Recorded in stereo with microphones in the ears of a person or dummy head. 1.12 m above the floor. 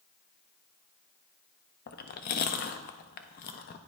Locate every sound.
1.9 s chewing: 45° left (ahead or behind), 0.5 m